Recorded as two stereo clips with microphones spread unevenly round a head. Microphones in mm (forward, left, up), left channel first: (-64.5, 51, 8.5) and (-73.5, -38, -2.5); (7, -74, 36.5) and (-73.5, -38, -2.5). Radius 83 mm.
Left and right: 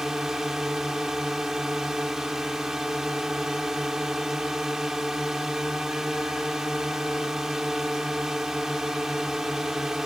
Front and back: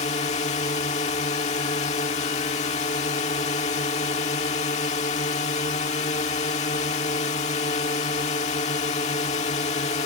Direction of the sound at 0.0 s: 10° right.